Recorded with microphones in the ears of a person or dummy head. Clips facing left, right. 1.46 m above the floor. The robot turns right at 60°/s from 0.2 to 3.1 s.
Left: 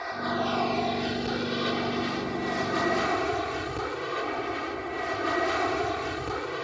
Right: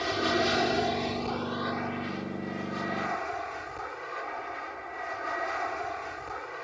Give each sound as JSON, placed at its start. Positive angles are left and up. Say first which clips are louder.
{"t": 0.0, "sound": "an aircraft", "louder": "right 2 dB", "azimuth_deg": -45}